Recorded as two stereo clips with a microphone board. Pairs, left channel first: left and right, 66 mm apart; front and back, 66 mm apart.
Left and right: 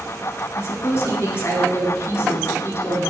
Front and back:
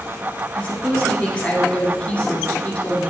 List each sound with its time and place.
0.6 s a woman speaking: 60° left, 1.4 m